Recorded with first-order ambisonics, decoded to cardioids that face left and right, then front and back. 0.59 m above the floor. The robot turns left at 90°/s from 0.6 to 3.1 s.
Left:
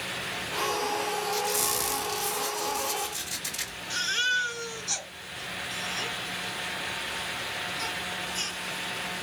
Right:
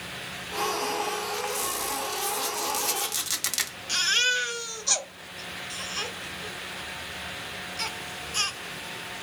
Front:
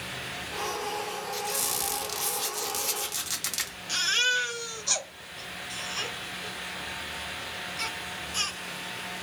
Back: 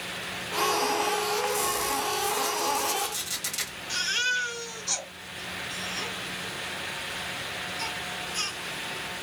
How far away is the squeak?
About 1.1 m.